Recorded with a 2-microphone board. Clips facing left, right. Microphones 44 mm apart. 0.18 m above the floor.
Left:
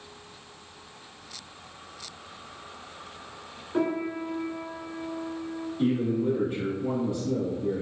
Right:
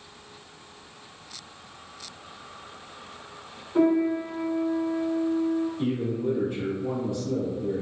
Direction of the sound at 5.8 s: 20° left (ahead or behind).